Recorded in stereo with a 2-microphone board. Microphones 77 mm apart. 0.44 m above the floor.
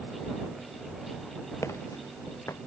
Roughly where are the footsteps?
Left.